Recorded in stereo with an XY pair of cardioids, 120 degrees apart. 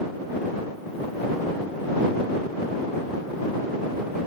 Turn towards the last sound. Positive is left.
No sound to turn to.